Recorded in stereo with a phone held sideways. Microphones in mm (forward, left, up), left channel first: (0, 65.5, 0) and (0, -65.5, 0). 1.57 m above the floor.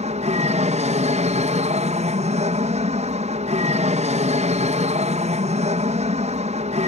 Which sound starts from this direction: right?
An aircraft, at 0.0 s.